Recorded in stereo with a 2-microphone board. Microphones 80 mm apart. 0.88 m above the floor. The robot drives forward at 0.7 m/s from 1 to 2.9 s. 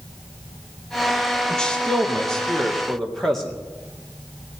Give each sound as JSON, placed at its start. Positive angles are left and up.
{"t": 1.5, "sound": "a man speaking", "side_deg": 10, "distance_m": 1.2}